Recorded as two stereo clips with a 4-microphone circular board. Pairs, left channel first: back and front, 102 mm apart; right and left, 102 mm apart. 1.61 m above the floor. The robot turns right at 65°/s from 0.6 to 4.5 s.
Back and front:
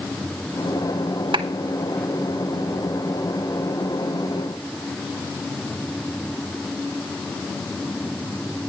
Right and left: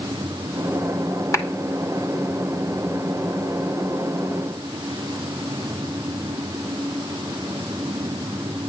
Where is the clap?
35° right, 2.5 m; by 1.4 s 25° right, 2.5 m.